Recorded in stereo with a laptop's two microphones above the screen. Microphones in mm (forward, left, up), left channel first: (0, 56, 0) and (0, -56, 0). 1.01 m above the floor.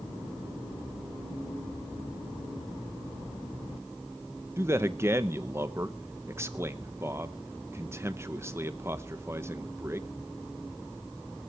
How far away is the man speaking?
About 0.8 m.